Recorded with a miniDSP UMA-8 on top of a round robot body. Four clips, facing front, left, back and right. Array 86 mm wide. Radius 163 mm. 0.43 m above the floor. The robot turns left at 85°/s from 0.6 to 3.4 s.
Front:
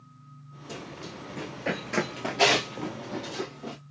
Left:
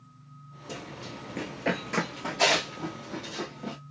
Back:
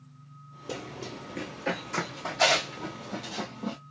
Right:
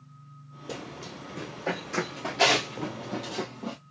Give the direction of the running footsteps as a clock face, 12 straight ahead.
5 o'clock.